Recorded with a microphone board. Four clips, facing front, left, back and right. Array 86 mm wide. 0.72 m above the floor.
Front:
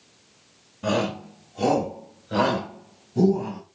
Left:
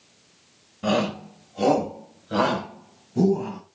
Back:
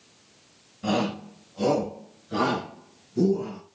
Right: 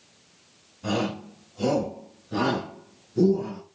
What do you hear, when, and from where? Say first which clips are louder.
0.8 s a shout: left 4 dB, front 1 dB; 75° left, 3 m; by 3.6 s 55° left, 5 m